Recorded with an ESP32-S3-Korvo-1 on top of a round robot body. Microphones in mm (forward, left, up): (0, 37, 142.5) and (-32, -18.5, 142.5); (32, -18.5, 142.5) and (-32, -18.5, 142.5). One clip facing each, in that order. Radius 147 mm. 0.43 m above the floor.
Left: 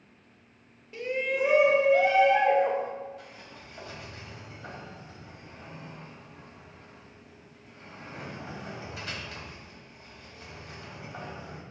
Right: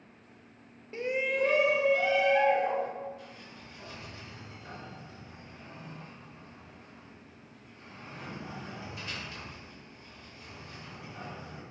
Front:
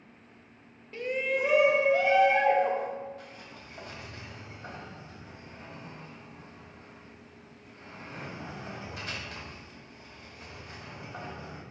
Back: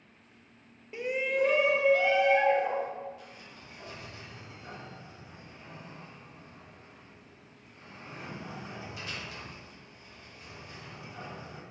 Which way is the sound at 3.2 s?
45° left.